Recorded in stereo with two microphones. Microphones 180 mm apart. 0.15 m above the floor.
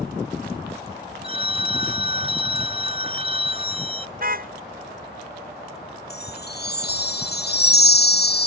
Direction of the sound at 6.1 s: 65° left (ahead or behind).